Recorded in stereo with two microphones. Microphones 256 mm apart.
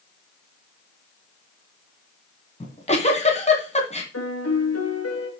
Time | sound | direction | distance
2.6 | a giggle | 25° left (ahead or behind) | 2 m
4.1 | a piano | 70° left (ahead or behind) | 3 m